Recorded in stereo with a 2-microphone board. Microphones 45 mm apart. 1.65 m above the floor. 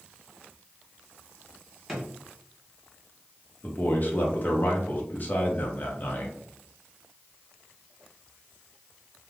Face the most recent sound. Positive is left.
turn(degrees=40)  # may be behind; listen again after turning